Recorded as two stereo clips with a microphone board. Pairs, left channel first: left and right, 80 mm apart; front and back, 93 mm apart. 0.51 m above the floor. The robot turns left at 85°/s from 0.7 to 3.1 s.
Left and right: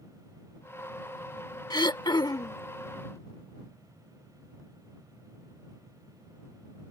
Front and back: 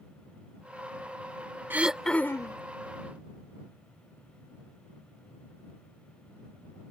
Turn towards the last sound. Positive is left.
turn(degrees=-5)